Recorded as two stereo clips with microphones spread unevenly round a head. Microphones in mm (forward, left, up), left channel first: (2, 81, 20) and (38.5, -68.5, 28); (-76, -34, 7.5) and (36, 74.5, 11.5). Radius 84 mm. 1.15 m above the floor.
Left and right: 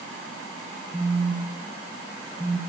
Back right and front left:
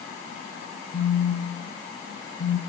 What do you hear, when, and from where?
0.9 s a phone buzzing: 160° right, 4.5 m